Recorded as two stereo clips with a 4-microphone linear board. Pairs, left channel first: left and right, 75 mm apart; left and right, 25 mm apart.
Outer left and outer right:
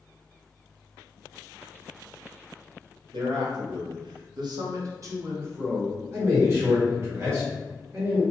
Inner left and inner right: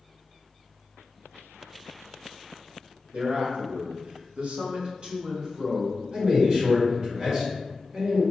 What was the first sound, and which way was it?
A man speaking, 65° right (ahead or behind).